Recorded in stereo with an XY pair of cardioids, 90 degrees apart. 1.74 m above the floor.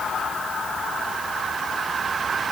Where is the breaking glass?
I don't hear breaking glass.